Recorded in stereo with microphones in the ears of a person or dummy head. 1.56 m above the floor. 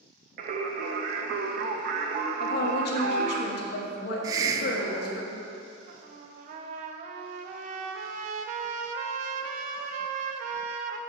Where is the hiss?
25° right (ahead or behind), 0.6 m.